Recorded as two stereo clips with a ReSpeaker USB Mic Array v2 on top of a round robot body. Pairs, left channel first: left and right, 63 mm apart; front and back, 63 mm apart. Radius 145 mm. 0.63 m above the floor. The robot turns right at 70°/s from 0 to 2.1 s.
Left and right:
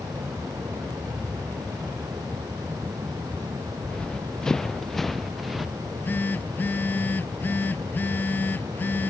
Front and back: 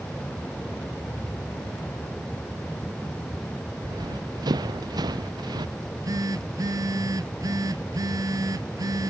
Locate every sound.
3.8 s running footsteps: 165° left; by 5.7 s straight behind
5.8 s a phone buzzing: 150° left